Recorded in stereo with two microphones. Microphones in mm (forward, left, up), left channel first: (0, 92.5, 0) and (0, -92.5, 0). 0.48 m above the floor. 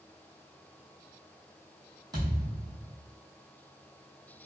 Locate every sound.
2.1 s a thud: 25° right (ahead or behind), 1.6 m